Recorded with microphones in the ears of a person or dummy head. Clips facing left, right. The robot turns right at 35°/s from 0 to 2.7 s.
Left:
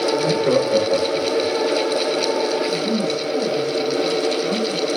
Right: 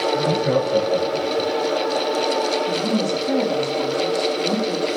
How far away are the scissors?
I don't hear scissors.